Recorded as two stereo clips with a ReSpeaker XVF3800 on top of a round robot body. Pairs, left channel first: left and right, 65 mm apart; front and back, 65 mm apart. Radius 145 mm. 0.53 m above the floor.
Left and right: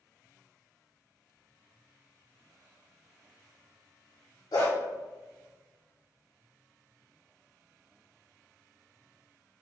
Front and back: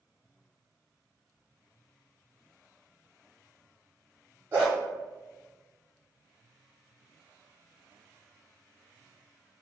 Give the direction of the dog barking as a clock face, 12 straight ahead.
8 o'clock.